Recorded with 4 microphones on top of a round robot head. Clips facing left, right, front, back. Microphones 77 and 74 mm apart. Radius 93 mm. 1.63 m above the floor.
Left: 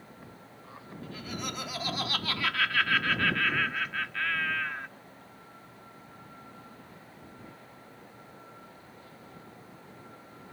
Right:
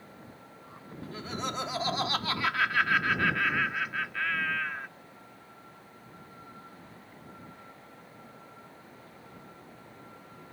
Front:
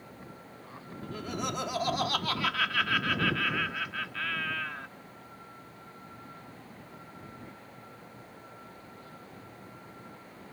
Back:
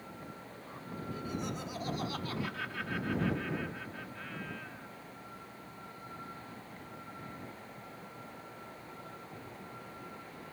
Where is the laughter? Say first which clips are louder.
Right 3 dB, front 4 dB; 35° right; by 4.9 s straight ahead.